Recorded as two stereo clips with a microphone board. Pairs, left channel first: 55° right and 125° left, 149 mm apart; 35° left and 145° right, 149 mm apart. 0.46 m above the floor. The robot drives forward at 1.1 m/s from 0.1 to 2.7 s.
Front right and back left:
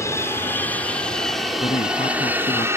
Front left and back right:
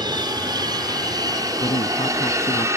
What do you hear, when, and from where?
0.0 s an aircraft: 110° right; by 2.8 s 170° left
1.6 s a man speaking: 10° right; by 2.7 s 15° right